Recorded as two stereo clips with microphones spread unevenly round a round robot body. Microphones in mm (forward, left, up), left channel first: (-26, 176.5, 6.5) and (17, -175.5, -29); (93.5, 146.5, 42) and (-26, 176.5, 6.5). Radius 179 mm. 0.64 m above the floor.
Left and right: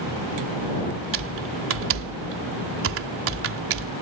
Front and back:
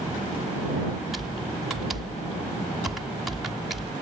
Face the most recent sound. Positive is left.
turn(degrees=-120)